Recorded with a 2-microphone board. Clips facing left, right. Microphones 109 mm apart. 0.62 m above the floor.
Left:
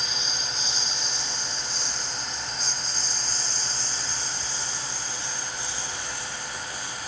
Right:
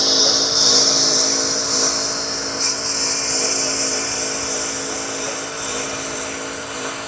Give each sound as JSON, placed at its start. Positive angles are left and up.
{"t": 0.0, "sound": "a lawn mower", "side_deg": -75}